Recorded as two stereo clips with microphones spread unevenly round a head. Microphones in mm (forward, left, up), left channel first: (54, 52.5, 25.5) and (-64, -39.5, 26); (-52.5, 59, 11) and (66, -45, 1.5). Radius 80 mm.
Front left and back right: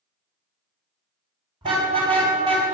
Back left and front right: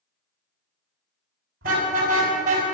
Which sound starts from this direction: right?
A car horn, at 1.6 s.